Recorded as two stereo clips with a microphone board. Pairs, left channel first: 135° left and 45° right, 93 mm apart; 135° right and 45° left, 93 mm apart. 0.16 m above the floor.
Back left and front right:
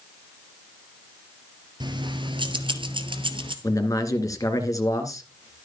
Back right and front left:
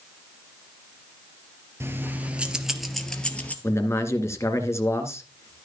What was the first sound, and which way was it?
Keys jangling, 15° right.